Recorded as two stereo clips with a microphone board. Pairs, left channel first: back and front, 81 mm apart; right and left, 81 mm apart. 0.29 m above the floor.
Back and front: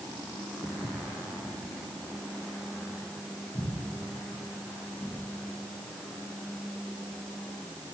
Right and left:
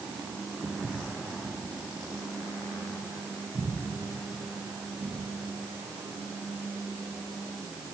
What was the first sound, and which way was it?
Footsteps, 165° left.